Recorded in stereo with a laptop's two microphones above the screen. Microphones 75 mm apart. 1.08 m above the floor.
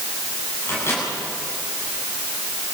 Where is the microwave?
35° left (ahead or behind), 9 m.